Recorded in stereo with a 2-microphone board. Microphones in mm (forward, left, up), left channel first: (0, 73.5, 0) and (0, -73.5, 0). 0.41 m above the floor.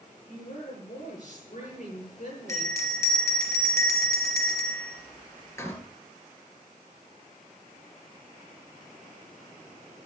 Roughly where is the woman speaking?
Left.